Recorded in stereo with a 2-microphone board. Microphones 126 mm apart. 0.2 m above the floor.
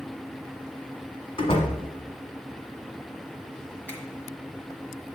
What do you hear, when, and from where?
1.4 s a door slam: 45° left (ahead or behind), 1.2 m
3.9 s a finger snap: 15° left (ahead or behind), 1.6 m